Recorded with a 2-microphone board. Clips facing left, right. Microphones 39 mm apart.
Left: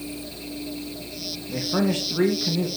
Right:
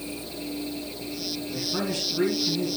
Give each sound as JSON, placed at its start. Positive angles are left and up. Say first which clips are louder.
{"t": 1.5, "sound": "a man speaking", "louder": "left 7 dB", "side_deg": 45, "distance_m": 2.5}